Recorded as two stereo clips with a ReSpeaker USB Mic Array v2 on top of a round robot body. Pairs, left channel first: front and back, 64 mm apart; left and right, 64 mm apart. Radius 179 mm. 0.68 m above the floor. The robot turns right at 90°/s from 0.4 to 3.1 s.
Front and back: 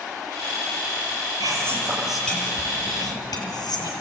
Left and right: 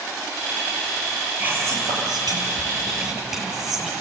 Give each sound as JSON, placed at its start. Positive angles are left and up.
{"t": 1.4, "sound": "whispering", "azimuth_deg": -155, "distance_m": 6.5}